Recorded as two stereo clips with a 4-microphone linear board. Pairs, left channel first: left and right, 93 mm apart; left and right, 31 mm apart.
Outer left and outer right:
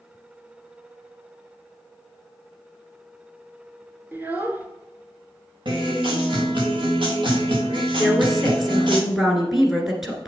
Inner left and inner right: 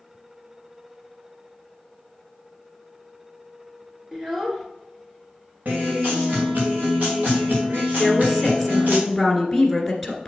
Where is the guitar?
55° right (ahead or behind), 3 m.